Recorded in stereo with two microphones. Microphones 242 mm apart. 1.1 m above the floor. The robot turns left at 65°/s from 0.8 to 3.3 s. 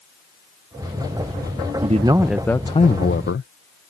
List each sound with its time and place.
1.8 s a man speaking: 145° right; by 3.5 s 120° left